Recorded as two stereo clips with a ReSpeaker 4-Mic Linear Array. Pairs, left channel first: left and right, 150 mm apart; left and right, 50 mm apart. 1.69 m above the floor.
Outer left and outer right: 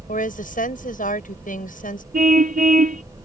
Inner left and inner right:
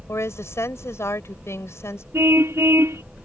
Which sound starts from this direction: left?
A woman speaking, at 0.1 s.